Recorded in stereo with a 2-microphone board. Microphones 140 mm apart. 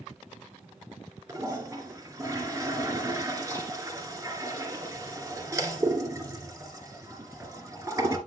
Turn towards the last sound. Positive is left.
turn(degrees=-25)  # may be behind; listen again after turning